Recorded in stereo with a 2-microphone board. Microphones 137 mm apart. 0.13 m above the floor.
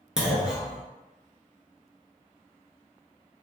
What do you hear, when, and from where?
0.2 s a clunk: 5° right (ahead or behind), 0.8 m